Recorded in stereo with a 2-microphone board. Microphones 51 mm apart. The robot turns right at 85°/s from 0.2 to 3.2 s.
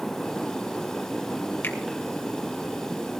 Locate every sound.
1.6 s a finger snap: 45° left (ahead or behind), 1.4 m; by 1.8 s 35° left (ahead or behind), 1.4 m